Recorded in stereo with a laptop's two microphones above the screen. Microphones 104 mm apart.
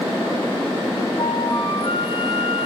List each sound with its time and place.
1.2 s a flute: 50° left (ahead or behind), 1.6 m